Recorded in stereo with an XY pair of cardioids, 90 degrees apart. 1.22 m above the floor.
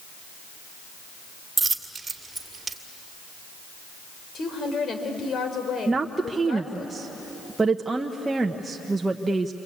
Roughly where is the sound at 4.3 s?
Ahead left.